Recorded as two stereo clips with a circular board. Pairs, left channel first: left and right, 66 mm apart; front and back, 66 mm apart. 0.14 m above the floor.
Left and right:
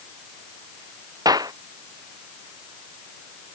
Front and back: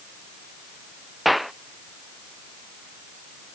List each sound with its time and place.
1.2 s a clap: 90° right